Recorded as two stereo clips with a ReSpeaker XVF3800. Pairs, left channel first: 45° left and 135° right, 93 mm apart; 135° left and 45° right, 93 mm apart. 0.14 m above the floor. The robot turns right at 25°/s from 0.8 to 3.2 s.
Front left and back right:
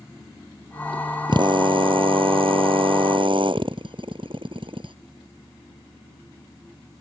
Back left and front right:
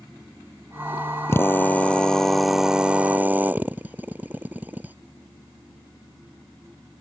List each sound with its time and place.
1.3 s a drill: 165° right; by 5.0 s 115° right